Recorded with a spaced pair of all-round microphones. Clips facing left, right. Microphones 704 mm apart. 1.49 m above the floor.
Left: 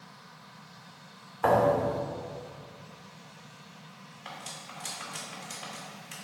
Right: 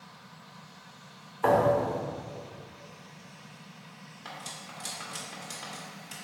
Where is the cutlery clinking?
65° right (ahead or behind), 2.0 m.